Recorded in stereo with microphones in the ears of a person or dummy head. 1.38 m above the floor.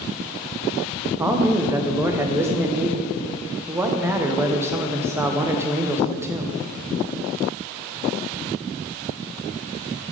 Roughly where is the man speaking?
Centre.